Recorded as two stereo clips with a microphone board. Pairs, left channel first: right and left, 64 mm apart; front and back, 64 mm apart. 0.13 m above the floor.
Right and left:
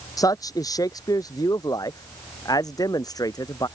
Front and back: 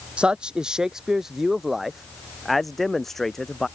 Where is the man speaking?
105° right; by 3.7 s 85° right.